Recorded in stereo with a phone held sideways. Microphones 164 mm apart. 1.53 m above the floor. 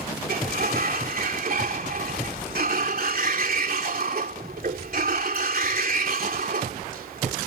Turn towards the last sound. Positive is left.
turn(degrees=-60)  # may be behind; listen again after turning